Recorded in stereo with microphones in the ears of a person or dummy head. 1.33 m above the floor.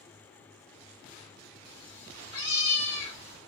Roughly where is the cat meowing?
Left.